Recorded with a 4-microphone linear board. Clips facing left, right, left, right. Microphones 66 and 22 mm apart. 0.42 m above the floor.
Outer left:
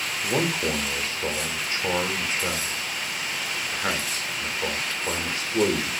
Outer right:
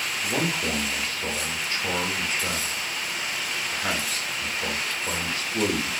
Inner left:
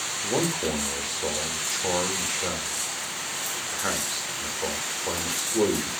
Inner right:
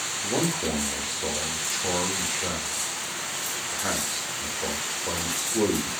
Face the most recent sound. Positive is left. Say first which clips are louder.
# outer left 3 dB, inner left 1 dB
turn(degrees=25)  # may be behind; listen again after turning